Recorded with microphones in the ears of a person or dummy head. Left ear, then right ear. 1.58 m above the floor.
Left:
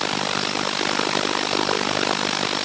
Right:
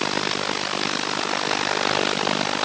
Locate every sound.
Only background noise.